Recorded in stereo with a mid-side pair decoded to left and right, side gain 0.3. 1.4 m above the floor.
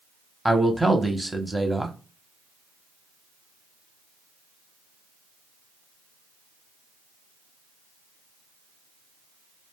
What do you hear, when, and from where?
0.5 s a man speaking: 5° right, 0.9 m